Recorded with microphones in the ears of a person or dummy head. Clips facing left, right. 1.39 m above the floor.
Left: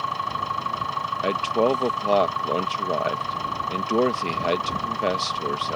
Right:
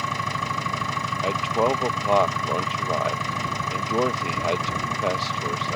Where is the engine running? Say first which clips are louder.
Right 1 dB; 30° right (ahead or behind).